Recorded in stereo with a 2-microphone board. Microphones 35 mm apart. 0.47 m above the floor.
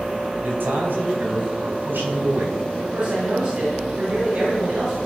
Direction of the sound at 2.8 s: 50° right (ahead or behind).